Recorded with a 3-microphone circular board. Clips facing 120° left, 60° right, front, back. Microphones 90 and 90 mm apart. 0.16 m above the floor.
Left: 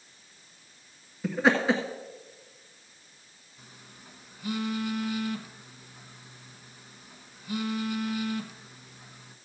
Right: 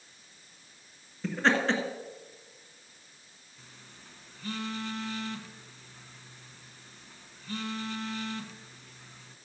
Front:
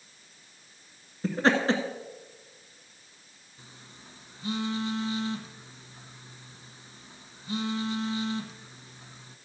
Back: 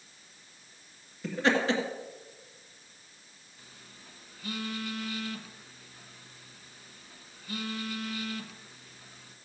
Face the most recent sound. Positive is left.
turn(degrees=50)